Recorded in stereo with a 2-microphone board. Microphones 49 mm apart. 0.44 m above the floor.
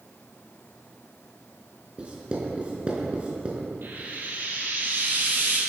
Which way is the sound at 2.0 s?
25° right (ahead or behind).